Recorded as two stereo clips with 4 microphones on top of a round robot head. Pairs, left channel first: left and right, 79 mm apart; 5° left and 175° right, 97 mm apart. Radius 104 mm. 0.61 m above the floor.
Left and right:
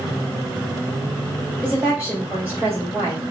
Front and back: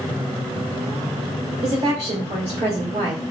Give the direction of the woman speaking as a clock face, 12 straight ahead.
5 o'clock.